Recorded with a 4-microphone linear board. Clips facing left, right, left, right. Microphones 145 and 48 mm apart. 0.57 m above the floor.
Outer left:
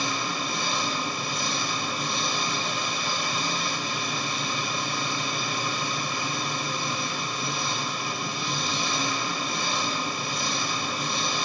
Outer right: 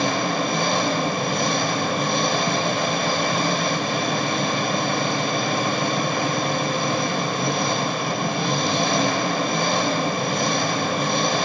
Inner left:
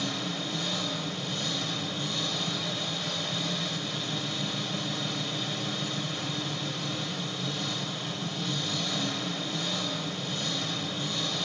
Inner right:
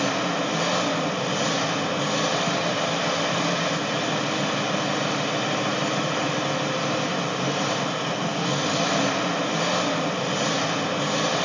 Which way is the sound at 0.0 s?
70° right (ahead or behind).